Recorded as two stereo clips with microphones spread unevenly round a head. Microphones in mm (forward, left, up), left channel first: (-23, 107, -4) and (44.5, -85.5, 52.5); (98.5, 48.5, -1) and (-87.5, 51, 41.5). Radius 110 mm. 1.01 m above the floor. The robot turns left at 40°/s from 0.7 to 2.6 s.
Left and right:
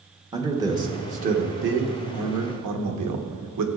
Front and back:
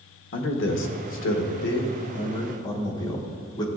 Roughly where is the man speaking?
Ahead.